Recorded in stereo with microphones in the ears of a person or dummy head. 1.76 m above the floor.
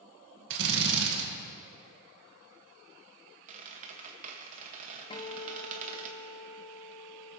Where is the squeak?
40° right (ahead or behind), 1.6 m.